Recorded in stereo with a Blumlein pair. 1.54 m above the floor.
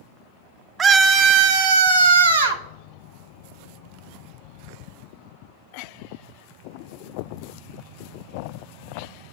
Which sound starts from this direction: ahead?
A scream, at 0.8 s.